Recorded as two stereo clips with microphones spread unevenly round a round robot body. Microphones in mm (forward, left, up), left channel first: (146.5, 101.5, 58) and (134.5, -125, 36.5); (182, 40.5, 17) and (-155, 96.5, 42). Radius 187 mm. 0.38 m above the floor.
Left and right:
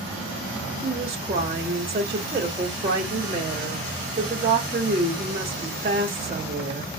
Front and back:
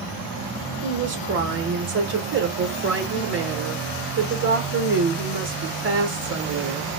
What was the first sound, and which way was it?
A woman speaking, 140° right.